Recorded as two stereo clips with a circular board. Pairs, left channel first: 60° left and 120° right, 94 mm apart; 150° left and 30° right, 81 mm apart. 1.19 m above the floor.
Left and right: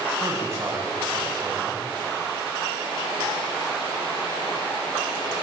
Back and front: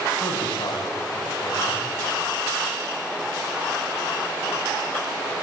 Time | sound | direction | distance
0.2 | a man speaking | straight behind | 9 m